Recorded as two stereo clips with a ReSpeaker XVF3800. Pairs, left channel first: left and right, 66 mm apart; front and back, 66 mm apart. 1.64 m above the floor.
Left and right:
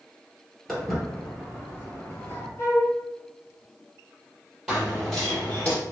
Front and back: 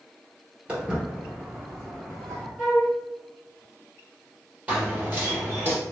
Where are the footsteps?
Straight behind, 1.6 m; by 2.5 s 70° left, 1.9 m.